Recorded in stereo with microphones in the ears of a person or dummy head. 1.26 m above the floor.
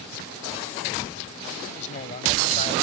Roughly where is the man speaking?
Left.